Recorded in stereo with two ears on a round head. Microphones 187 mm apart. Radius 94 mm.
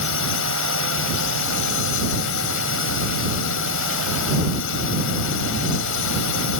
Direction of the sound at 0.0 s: 70° left (ahead or behind).